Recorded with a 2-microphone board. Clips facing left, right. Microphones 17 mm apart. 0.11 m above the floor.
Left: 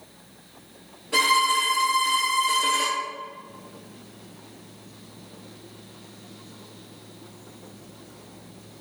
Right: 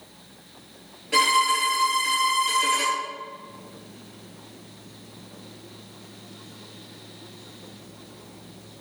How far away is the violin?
About 1.7 m.